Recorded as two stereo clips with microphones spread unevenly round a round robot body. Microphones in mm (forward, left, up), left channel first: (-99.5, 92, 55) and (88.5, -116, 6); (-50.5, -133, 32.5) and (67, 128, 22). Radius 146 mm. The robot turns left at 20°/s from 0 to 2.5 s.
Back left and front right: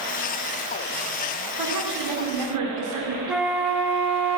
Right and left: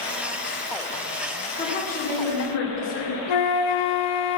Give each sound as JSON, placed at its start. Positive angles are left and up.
{"t": 1.6, "sound": "a woman speaking", "azimuth_deg": -45, "distance_m": 2.0}
{"t": 3.3, "sound": "a flute", "azimuth_deg": -135, "distance_m": 0.8}